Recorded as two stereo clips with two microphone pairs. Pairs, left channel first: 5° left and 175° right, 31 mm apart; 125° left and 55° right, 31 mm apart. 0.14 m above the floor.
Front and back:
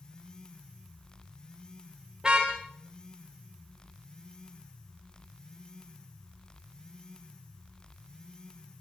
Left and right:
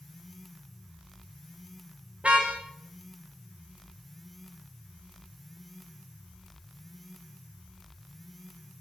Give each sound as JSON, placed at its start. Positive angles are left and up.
{"t": 2.2, "sound": "a car horn", "azimuth_deg": -105, "distance_m": 5.0}